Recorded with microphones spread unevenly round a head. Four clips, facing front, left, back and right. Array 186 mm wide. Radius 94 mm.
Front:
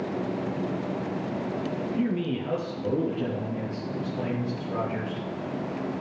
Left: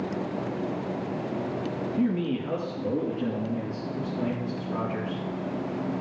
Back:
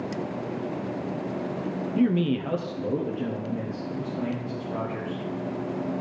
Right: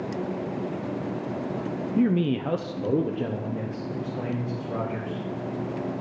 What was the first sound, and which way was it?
A man speaking, 130° right.